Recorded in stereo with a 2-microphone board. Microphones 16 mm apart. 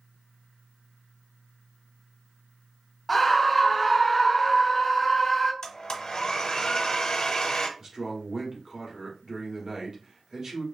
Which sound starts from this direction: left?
A blender, at 5.6 s.